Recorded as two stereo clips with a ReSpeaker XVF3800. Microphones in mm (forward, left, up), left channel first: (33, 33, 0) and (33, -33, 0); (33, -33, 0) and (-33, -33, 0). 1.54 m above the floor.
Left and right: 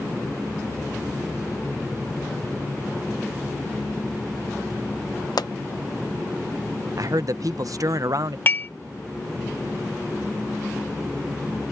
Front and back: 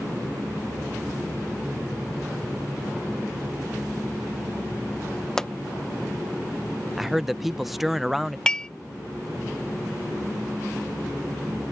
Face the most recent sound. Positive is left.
turn(degrees=70)